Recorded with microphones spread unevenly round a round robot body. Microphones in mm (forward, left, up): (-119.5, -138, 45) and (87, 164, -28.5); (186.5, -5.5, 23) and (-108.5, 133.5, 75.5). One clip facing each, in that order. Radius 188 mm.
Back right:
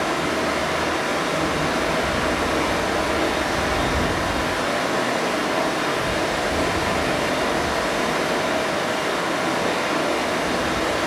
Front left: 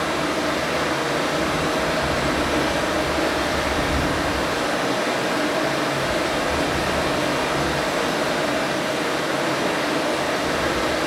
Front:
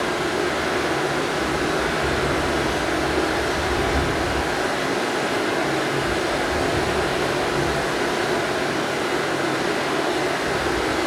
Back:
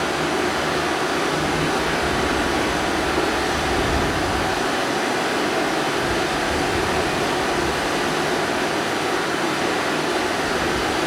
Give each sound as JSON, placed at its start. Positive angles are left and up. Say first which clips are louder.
{"t": 0.0, "sound": "running water", "louder": "even, back 1 dB", "azimuth_deg": 90, "distance_m": 1.1}